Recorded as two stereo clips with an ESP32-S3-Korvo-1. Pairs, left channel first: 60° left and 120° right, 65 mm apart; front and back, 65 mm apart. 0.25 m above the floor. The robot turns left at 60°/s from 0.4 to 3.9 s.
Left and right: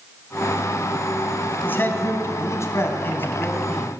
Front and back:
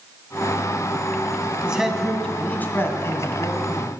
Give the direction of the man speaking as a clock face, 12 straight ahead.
8 o'clock.